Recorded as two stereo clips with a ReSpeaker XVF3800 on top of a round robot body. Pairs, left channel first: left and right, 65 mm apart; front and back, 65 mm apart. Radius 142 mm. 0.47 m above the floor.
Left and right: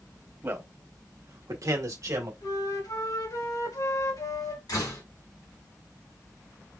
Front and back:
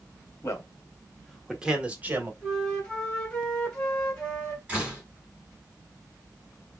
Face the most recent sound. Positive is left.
turn(degrees=105)